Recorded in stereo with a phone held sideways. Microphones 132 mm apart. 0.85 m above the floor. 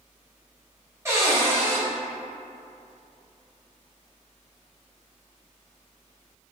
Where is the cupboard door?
20° right (ahead or behind), 1.0 m.